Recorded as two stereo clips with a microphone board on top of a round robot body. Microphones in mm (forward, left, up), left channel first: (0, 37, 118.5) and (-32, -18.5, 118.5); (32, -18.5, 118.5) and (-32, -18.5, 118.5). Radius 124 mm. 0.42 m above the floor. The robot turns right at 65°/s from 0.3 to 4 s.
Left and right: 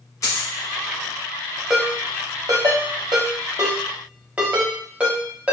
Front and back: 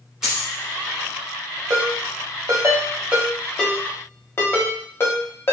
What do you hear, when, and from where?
0.2 s a dropped coin: 100° left, 1.4 m; by 0.5 s 110° left, 1.4 m
1.7 s a ringtone: 160° left, 1.1 m; by 5.5 s 50° right, 1.1 m